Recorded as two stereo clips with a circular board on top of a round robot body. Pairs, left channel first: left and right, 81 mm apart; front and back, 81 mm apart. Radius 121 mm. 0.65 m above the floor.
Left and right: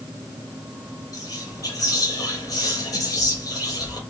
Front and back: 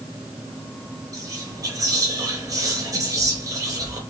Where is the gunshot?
No gunshot in this recording.